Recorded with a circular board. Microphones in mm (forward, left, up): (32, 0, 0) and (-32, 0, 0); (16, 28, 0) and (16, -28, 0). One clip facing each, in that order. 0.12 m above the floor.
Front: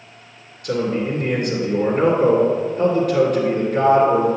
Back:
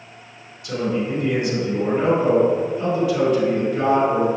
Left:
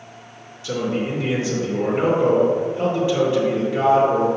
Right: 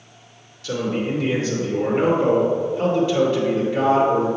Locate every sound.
0.6 s a man speaking: 20° left, 2.5 m